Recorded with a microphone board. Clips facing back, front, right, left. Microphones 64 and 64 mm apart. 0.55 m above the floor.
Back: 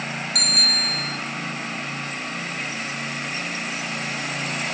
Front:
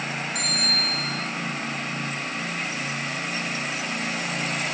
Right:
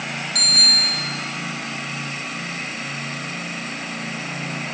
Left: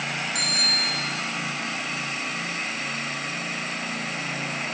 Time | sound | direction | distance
0.3 | a bicycle bell | 160° left | 4 m